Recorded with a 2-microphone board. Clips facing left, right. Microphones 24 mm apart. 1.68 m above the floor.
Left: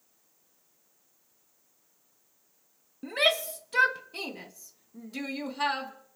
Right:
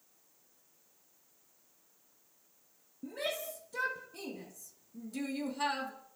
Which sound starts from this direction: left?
A shout, at 3.0 s.